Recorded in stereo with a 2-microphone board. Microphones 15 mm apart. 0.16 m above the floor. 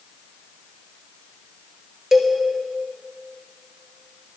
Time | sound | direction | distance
2.1 | a cowbell | 35° right (ahead or behind) | 1.9 m